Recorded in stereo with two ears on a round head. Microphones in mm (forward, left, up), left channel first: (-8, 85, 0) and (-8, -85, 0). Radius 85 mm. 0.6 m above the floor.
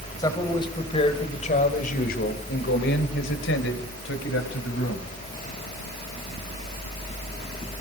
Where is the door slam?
No door slam in this recording.